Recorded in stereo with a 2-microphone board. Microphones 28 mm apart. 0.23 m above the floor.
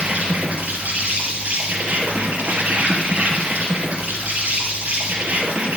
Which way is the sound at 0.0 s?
65° right (ahead or behind).